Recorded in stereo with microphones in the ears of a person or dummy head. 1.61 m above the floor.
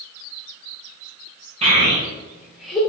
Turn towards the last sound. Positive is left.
turn(degrees=10)  # may be behind; listen again after turning